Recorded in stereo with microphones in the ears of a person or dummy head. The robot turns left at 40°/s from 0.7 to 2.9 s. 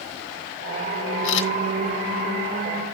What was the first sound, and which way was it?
A camera shutter, 75° left (ahead or behind).